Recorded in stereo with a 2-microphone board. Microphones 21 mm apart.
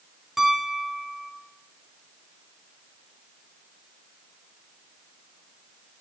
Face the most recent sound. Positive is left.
turn(degrees=-10)  # may be behind; listen again after turning